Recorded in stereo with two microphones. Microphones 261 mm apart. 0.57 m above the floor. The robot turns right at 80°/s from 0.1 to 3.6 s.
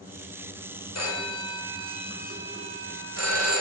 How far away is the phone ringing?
About 2 m.